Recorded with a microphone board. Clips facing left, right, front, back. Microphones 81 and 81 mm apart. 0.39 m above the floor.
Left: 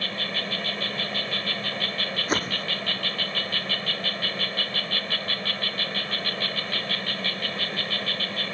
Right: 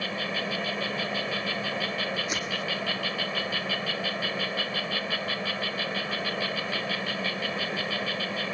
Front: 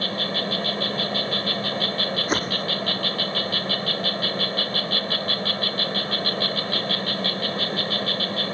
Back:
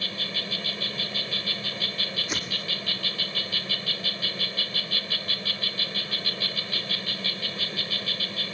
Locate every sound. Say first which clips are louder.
0.0 s an insect: right 1 dB, front 9 dB; 10° right
2.3 s a whoosh: left 4 dB, front 9 dB; 45° left